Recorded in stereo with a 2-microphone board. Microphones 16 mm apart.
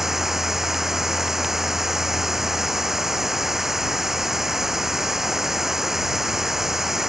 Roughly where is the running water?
Right.